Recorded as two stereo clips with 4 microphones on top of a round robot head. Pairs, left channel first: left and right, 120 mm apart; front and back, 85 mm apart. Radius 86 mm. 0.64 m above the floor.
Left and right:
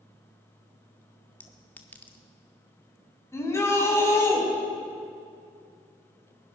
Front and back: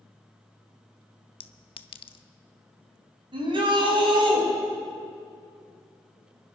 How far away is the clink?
About 0.7 m.